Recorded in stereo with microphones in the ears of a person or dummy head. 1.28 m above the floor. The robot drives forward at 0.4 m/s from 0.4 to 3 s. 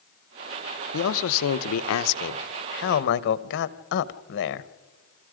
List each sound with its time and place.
0.9 s a man speaking: 70° left (ahead or behind), 0.8 m; by 4.7 s 55° left (ahead or behind), 0.9 m